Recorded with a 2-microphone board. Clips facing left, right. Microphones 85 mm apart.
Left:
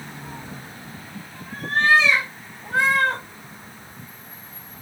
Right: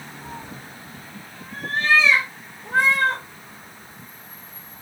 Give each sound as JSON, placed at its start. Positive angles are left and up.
{"t": 0.2, "sound": "a cat meowing", "side_deg": -25, "distance_m": 0.7}